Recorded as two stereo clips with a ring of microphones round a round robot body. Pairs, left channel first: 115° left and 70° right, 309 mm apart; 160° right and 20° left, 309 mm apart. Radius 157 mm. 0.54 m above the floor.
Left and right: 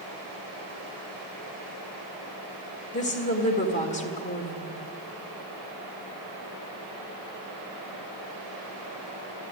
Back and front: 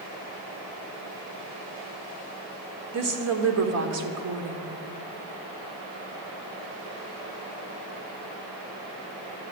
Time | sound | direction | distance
2.9 | a woman speaking | 50° left | 1.6 m